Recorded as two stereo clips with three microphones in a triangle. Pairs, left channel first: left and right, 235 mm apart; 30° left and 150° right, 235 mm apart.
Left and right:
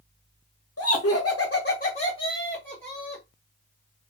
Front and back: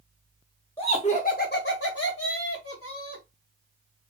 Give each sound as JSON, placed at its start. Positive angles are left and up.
{"t": 0.8, "sound": "laughter", "azimuth_deg": 105, "distance_m": 0.7}